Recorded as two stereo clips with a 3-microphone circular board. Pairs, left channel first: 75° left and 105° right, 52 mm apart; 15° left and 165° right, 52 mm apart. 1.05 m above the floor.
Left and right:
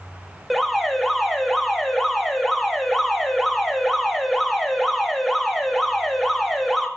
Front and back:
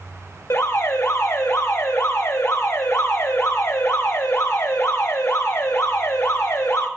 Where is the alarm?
20° right, 1.8 m.